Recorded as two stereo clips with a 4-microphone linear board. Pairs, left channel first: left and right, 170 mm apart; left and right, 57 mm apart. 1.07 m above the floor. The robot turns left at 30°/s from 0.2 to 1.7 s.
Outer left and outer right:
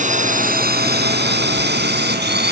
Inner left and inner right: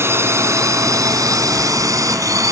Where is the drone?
45° right (ahead or behind); by 2.5 s 80° right.